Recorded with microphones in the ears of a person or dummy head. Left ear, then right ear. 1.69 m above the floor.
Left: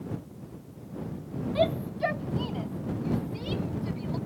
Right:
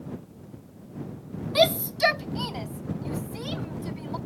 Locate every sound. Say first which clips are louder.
1.6 s a shout: right 6 dB; 55° right (ahead or behind); by 4.2 s 45° right (ahead or behind)